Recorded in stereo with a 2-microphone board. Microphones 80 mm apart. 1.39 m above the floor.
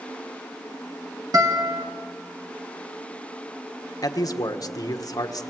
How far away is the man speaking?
About 1.4 m.